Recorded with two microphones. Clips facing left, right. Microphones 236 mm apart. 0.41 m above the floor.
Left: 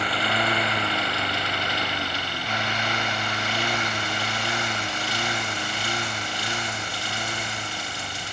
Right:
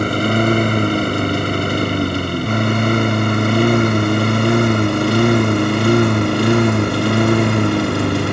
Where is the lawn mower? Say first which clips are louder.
Right 13 dB; 50° right (ahead or behind); by 8.3 s 70° right (ahead or behind).